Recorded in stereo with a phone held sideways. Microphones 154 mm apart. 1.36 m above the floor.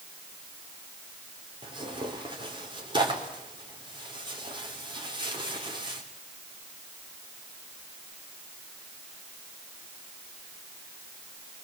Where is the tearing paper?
30° right (ahead or behind), 4 m.